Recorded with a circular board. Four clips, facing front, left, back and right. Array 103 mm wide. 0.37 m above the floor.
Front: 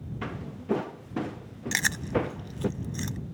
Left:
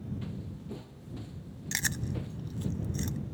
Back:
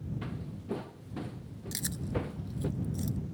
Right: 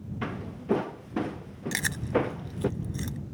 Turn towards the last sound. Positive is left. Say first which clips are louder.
# right 9 dB, front 8 dB
turn(degrees=-10)